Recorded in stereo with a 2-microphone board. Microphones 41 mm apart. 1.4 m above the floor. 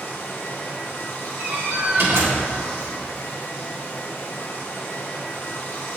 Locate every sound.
0.0 s running water: 65° left (ahead or behind), 1.2 m
1.4 s a door slam: 80° right, 1.5 m